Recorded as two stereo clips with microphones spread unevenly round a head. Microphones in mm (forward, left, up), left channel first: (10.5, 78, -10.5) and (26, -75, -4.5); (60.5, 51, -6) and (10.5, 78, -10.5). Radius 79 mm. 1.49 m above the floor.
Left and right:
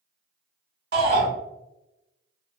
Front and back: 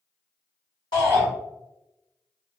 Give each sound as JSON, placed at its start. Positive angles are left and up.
{"t": 0.9, "sound": "a shout", "azimuth_deg": -65, "distance_m": 1.7}